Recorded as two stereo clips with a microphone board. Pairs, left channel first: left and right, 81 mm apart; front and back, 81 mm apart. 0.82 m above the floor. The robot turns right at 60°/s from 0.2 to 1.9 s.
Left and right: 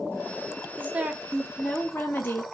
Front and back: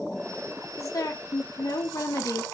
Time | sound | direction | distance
0.8 | a woman speaking | 30° right | 0.7 m